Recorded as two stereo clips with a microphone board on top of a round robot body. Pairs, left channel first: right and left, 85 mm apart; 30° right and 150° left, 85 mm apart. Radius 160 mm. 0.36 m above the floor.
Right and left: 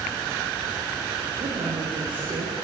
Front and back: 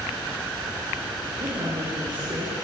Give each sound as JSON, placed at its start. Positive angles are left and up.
{"t": 1.4, "sound": "a woman speaking", "azimuth_deg": 110, "distance_m": 8.0}